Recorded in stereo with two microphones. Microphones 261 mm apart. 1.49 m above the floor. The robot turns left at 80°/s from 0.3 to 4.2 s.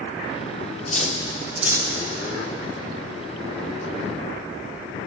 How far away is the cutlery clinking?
About 0.6 m.